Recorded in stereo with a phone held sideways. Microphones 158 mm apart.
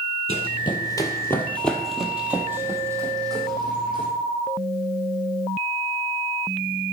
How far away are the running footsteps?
About 1.5 m.